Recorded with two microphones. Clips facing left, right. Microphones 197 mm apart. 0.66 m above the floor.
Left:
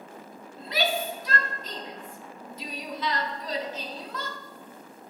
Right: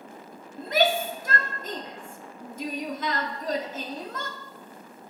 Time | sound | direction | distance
0.6 | a shout | 50° right (ahead or behind) | 0.9 m